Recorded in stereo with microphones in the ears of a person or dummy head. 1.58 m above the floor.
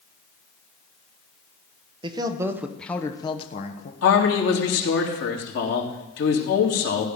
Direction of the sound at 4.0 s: 70° left (ahead or behind).